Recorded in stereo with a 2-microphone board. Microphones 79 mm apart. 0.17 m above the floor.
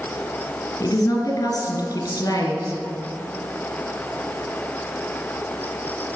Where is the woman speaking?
50° left (ahead or behind), 2 m.